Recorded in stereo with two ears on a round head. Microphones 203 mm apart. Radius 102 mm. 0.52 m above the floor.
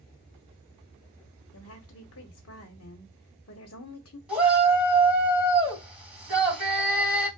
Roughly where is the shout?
Centre.